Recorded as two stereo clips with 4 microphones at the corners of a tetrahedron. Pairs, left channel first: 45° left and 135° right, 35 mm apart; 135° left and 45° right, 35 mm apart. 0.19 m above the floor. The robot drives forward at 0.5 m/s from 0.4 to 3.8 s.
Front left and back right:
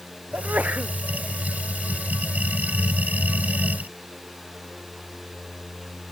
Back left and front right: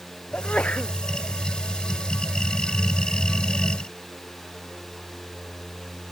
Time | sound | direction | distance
0.3 | a sneeze | 175° right | ?